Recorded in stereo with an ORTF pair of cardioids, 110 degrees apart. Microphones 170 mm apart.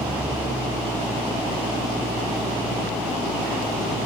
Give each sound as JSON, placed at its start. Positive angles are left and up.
{"t": 0.0, "sound": "an engine running", "azimuth_deg": -10}